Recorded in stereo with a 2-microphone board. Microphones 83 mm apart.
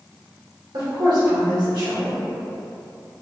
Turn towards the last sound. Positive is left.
turn(degrees=-70)  # may be behind; listen again after turning